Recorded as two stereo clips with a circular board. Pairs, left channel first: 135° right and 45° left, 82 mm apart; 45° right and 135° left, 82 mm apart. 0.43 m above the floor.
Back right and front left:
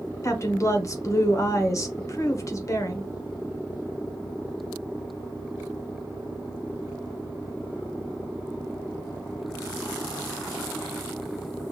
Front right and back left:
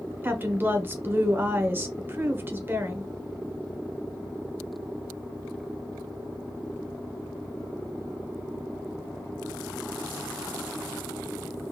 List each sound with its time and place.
0.2 s a woman speaking: 170° right, 1.1 m